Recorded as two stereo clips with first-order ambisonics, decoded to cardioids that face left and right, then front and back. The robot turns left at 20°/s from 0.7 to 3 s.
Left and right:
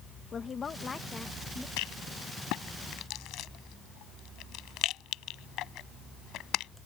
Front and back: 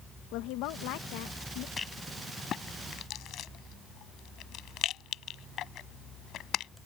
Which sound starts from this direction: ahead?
A woman speaking, at 0.3 s.